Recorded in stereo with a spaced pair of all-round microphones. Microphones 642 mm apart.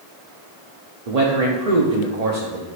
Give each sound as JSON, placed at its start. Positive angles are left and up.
{"t": 1.1, "sound": "a man speaking", "side_deg": -70, "distance_m": 0.9}